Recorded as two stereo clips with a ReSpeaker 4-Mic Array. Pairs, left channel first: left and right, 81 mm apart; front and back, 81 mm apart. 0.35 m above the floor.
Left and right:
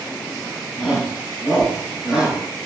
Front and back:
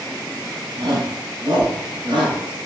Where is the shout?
175° left, 2.5 m; by 2.4 s straight behind, 4.5 m.